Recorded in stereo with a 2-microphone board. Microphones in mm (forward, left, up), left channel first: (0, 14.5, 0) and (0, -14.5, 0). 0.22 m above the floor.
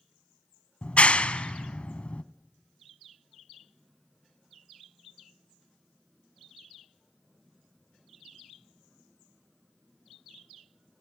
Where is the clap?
45° left (ahead or behind), 1.1 m.